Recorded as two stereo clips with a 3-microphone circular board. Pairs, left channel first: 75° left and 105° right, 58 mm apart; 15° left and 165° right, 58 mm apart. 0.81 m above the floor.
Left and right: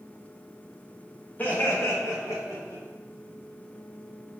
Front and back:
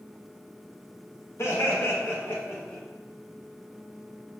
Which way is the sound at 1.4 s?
20° left.